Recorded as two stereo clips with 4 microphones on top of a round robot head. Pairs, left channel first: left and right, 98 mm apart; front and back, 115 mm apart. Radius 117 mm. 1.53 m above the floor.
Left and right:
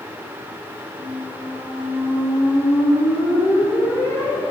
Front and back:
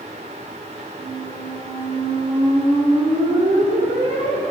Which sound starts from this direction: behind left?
A squeak, at 1.0 s.